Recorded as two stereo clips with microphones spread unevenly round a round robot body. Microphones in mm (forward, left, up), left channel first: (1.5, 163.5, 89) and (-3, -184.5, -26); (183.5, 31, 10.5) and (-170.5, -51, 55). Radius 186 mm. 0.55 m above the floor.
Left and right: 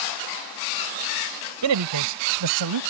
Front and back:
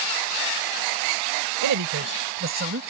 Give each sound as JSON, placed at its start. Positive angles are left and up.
{"t": 1.6, "sound": "a man speaking", "azimuth_deg": -125}